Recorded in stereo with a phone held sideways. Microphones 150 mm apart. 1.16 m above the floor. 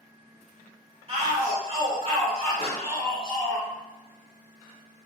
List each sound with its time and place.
1.1 s a shout: 40° right (ahead or behind), 1.2 m
2.6 s a pop: 40° left (ahead or behind), 1.9 m